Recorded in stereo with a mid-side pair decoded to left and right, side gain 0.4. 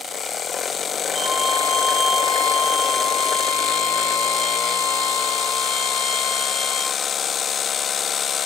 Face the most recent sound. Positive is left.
turn(degrees=-25)